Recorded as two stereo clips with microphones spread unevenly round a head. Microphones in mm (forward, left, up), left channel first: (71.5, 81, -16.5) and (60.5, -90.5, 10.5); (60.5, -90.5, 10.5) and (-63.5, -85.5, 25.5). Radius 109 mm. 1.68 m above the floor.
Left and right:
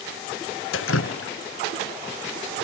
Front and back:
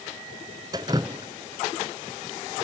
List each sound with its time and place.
0.7 s dripping: 110° left, 0.6 m